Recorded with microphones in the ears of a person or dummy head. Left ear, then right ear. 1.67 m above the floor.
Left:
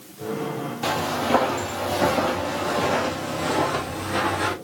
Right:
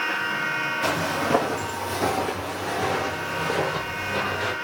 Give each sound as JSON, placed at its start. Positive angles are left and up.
{"t": 0.8, "sound": "footsteps", "side_deg": 10, "distance_m": 2.0}